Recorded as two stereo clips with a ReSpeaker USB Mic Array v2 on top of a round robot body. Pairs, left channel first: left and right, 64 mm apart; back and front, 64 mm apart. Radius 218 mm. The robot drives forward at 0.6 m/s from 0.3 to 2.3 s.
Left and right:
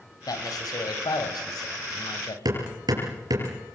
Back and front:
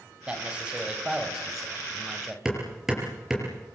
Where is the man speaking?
75° left, 4 m; by 2.4 s 90° left, 4 m.